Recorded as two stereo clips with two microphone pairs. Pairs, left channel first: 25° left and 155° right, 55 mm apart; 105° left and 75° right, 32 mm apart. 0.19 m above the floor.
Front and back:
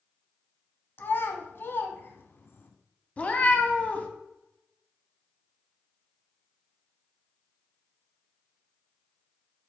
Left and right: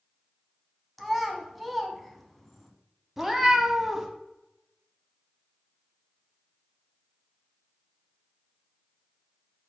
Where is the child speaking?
20° left, 0.8 m.